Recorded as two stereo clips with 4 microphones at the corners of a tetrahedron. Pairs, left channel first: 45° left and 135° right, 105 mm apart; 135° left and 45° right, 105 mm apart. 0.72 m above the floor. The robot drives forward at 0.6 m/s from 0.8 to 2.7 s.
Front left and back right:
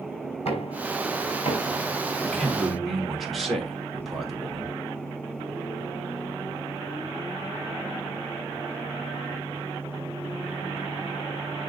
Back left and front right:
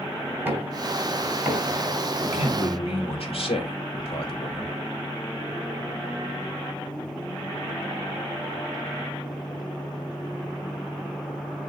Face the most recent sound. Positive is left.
turn(degrees=135)